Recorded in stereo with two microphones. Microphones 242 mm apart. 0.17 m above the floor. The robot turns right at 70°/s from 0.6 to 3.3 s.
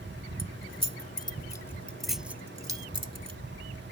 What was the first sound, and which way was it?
Keys jangling, 20° left (ahead or behind).